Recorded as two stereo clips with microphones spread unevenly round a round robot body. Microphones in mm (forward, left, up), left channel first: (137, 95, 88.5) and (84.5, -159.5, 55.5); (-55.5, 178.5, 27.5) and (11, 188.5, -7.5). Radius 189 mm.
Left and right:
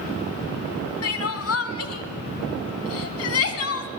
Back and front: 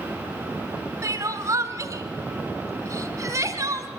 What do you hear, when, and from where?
1.0 s crying: 45° left, 2 m